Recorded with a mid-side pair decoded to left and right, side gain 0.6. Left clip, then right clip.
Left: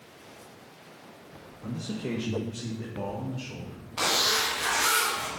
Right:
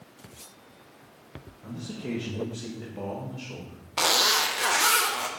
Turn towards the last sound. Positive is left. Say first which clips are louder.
# right 3 dB
turn(degrees=-35)